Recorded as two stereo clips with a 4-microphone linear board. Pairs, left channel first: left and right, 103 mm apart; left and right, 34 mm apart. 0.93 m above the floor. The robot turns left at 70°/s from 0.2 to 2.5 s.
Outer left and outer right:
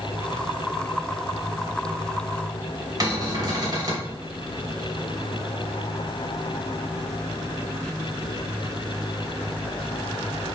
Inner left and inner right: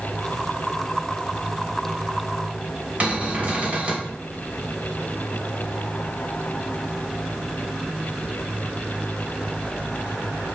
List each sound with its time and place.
3.0 s a cupboard door: 40° right (ahead or behind), 2 m